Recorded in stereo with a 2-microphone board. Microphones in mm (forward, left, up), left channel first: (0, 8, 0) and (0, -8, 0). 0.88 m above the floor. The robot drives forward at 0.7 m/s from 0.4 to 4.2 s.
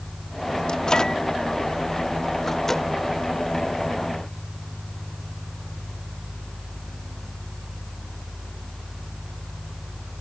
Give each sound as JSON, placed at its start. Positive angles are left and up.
{"t": 0.7, "sound": "a microwave", "side_deg": 55}